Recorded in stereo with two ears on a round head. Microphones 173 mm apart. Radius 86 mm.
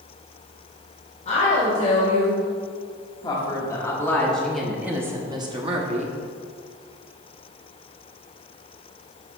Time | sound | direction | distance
1.2 | a woman speaking | 35° left (ahead or behind) | 2 m